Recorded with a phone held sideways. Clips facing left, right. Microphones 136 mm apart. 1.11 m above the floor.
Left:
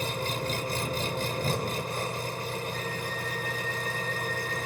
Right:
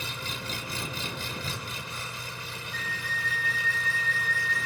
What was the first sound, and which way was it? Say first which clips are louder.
An engine running: left 7 dB; 50° left (ahead or behind).